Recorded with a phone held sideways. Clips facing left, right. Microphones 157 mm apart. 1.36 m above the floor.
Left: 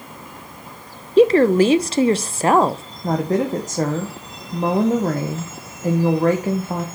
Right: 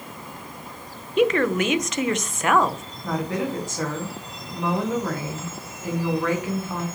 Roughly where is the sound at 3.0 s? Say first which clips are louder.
Left 6 dB; left.